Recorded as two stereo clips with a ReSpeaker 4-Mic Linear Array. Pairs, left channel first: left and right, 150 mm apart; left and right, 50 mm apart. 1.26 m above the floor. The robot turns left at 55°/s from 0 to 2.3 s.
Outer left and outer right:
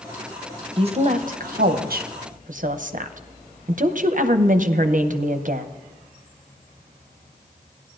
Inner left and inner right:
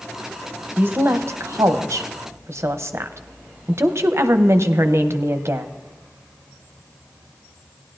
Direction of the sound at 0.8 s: 35° right (ahead or behind).